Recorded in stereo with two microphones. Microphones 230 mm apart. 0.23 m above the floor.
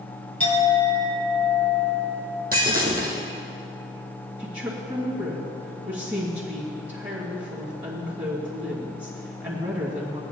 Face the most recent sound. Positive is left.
turn(degrees=-25)  # may be behind; listen again after turning